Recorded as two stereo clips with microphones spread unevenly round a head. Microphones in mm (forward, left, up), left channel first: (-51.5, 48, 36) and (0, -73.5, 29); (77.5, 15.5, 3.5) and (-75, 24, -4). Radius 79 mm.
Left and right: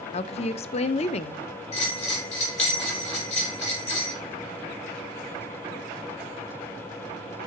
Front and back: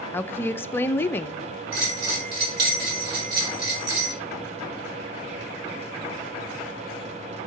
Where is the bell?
155° left, 4.5 m.